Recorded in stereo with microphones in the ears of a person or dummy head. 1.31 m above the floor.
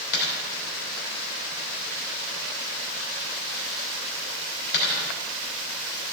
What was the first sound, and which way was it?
A dropped coin, 70° left (ahead or behind).